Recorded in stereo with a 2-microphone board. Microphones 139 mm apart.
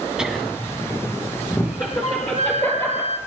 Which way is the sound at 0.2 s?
5° right (ahead or behind).